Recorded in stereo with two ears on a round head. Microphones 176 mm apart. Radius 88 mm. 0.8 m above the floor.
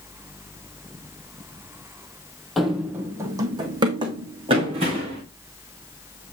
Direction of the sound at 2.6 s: Centre (ahead or behind).